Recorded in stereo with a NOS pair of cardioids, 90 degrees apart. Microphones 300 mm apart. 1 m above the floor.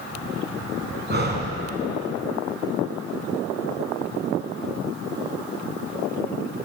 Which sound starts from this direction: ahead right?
Breathing, at 1.1 s.